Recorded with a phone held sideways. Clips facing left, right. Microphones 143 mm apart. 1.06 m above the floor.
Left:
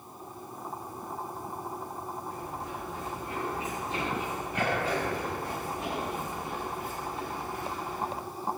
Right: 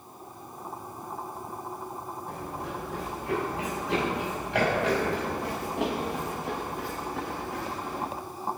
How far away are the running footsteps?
About 8 m.